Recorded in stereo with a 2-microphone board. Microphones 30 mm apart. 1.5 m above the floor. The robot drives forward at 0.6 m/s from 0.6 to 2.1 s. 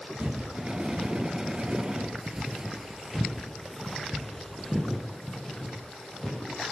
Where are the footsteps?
50° right (ahead or behind), 3 m; by 6.6 s 20° left (ahead or behind), 4.5 m.